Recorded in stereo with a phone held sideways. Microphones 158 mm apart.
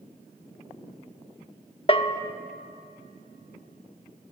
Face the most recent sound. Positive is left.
turn(degrees=35)  # may be behind; listen again after turning